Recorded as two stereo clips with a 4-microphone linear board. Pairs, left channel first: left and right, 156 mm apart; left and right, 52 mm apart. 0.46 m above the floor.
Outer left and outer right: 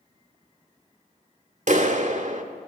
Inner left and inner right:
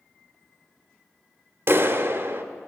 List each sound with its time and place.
1.7 s a clap: 55° right (ahead or behind), 1.0 m